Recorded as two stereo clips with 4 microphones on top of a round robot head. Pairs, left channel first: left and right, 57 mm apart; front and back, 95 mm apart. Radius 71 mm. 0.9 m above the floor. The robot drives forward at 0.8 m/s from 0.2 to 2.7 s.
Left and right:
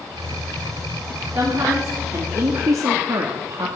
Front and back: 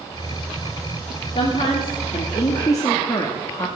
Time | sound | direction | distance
1.4 | a woman speaking | 30° right | 2 m